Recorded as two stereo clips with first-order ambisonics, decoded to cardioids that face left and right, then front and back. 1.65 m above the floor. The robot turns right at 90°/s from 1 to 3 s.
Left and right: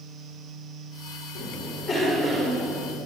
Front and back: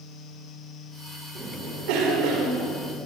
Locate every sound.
1.4 s a cough: 120° left, 5 m; by 3.0 s 95° right, 5 m